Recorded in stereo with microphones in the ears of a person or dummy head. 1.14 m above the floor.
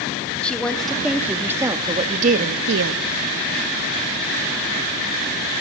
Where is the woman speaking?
5° left (ahead or behind), 2.5 m; by 3.0 s 80° right, 1.2 m.